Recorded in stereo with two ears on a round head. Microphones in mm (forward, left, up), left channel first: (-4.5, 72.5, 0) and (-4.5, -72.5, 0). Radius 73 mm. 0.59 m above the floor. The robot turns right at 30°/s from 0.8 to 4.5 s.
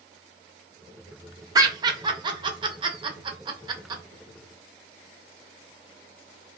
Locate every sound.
1.6 s laughter: 20° right (ahead or behind), 0.7 m; by 4.0 s 25° right (ahead or behind), 0.7 m